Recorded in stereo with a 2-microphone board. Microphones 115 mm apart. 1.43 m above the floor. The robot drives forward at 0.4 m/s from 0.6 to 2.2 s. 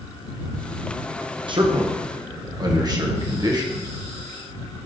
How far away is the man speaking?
About 1.2 m.